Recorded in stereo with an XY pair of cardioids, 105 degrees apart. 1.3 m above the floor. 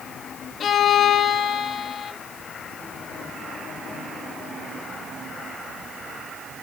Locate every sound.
0.6 s a violin: 55° left, 1.3 m